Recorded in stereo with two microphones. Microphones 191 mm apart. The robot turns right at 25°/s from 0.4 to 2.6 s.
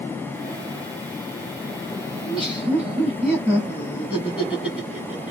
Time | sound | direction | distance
2.2 | laughter | centre (ahead or behind) | 1.8 m